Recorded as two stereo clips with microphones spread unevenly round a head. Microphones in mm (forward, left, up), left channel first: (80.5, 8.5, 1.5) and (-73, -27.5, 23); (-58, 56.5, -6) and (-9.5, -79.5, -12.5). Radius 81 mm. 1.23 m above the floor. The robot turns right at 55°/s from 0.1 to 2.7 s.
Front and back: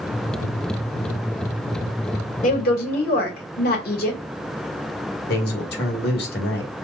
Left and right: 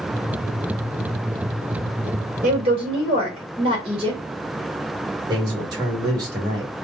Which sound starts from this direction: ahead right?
A woman speaking, at 2.4 s.